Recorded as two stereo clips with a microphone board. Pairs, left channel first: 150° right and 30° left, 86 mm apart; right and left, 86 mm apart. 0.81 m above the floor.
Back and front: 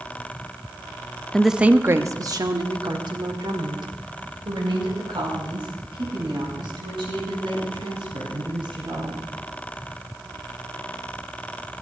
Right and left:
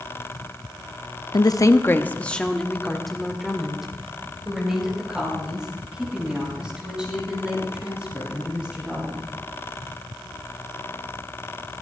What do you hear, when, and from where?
1.3 s a woman speaking: 70° right, 0.6 m; by 9.2 s 10° left, 7 m